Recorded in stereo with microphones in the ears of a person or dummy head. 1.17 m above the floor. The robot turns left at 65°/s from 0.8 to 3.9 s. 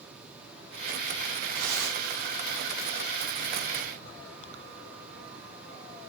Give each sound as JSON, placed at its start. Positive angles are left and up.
{"t": 1.5, "sound": "tearing paper", "azimuth_deg": -80, "distance_m": 3.0}